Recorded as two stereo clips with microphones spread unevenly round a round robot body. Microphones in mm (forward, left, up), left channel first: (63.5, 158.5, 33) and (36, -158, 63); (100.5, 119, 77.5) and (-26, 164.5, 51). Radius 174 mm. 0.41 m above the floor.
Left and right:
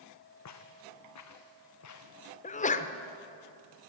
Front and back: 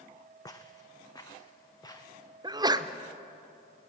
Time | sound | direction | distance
0.5 | footsteps | 45° left | 1.9 m
2.4 | a sneeze | 135° left | 1.1 m